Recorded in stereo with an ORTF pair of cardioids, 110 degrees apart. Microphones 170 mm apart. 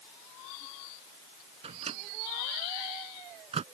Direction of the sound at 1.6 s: 35° right.